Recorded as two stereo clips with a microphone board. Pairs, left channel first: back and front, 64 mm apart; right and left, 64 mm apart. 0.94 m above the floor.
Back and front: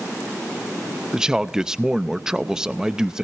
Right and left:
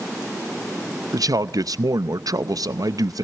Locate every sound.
1.1 s a man speaking: 80° left, 0.6 m